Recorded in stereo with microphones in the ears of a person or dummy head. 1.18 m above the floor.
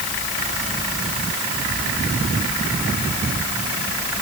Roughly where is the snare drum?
I don't hear a snare drum.